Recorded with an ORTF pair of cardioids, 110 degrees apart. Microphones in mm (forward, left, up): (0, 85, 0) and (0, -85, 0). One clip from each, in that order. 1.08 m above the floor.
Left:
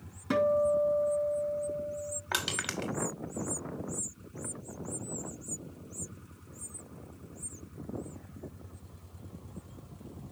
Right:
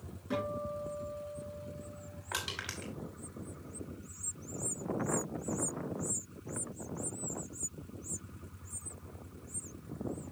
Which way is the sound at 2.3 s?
45° left.